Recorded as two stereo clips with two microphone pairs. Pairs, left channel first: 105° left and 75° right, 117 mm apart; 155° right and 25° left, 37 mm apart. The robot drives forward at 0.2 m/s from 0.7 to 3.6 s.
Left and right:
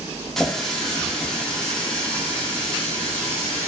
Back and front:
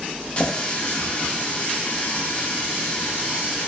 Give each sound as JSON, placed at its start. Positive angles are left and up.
{"t": 0.4, "sound": "a running tap", "azimuth_deg": -170, "distance_m": 0.5}